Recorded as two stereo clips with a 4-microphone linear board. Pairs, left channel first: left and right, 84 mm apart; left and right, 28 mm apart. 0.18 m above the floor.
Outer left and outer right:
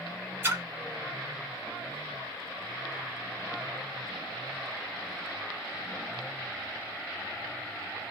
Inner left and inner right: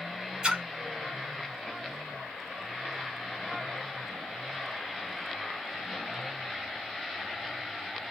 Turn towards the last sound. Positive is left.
turn(degrees=-25)  # may be behind; listen again after turning